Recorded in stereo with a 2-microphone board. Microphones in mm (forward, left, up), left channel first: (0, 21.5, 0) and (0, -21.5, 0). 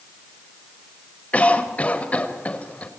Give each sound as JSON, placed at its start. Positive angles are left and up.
{"t": 1.3, "sound": "a cough", "side_deg": 30, "distance_m": 4.5}